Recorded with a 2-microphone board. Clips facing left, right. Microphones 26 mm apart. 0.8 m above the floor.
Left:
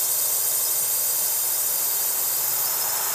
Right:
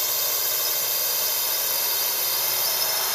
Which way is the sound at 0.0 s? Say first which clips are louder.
Right 3 dB; 30° right (ahead or behind).